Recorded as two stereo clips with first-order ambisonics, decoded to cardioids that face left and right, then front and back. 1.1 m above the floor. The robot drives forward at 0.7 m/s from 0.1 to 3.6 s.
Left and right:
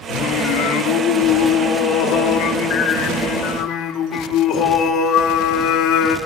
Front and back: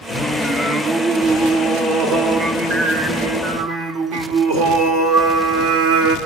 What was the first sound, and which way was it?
Singing, 85° left.